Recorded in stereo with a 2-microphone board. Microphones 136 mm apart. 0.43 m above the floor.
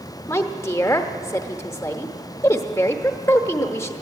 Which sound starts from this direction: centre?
A woman speaking, at 0.3 s.